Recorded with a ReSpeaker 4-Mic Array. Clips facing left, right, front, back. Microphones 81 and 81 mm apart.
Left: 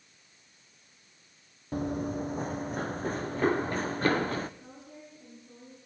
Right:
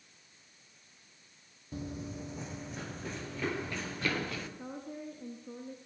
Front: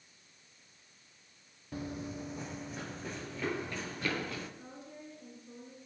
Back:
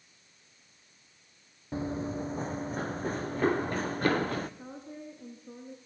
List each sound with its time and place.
1.7 s running footsteps: 120° left, 0.7 m; by 4.5 s 140° left, 2 m
4.6 s a woman speaking: 125° right, 3.5 m